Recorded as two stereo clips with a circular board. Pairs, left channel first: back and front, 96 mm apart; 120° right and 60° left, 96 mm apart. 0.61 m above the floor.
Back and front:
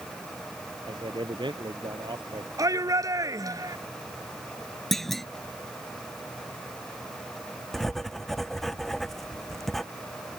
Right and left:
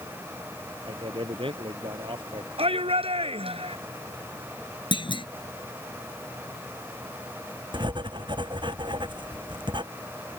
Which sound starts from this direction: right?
A clunk, at 4.9 s.